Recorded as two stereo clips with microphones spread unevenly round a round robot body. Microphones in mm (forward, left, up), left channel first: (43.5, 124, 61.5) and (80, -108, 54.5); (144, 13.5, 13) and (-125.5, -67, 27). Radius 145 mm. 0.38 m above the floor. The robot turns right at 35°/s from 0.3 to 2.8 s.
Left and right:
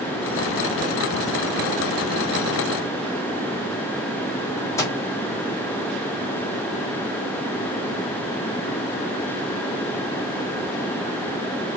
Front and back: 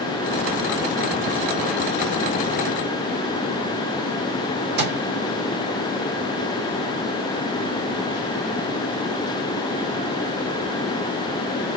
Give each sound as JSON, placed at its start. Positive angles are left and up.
{"t": 4.8, "sound": "a microwave", "azimuth_deg": 170, "distance_m": 1.0}